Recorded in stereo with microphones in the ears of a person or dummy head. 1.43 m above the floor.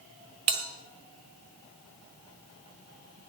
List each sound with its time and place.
0.5 s a bell: 30° right (ahead or behind), 1.4 m